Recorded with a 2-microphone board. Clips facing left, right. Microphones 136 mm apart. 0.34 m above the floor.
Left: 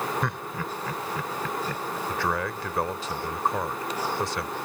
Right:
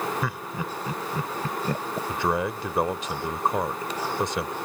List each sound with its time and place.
0.2 s laughter: 5° right (ahead or behind); by 2.0 s 40° right (ahead or behind)
2.1 s a man speaking: 20° right (ahead or behind)